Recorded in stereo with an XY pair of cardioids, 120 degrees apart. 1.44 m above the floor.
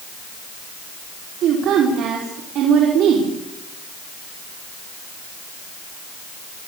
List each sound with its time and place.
1.4 s a woman speaking: 65° right, 4.5 m